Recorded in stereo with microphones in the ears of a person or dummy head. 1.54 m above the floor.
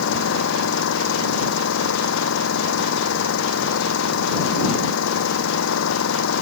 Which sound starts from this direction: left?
An engine running, at 0.0 s.